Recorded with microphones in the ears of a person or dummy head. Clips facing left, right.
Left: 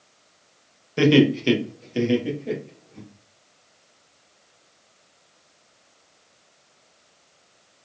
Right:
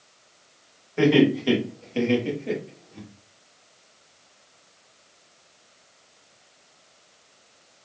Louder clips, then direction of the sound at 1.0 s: Left 1 dB; 55° left (ahead or behind).